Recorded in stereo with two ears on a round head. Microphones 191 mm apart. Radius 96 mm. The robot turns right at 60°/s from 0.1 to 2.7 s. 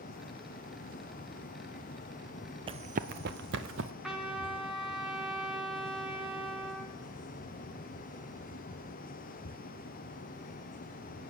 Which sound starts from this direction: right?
Running footsteps, at 2.7 s.